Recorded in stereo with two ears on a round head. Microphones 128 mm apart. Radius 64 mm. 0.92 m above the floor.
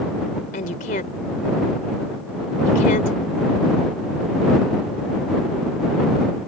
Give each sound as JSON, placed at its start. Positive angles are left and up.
{"t": 0.5, "sound": "a woman speaking", "side_deg": 55}